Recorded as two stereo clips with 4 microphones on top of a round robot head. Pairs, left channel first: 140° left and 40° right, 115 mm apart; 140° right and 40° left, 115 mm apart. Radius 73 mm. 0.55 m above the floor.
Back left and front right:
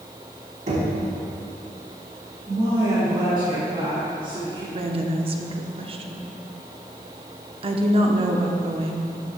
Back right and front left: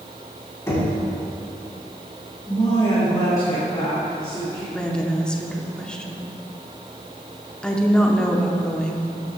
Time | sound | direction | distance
0.7 | knocking | 70° right | 3.5 m
2.5 | a woman speaking | 85° right | 3 m
4.7 | a woman speaking | 55° right | 1.0 m